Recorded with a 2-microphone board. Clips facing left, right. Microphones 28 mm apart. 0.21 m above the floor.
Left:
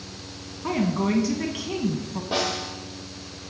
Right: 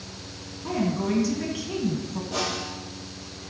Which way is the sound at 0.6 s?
35° left (ahead or behind).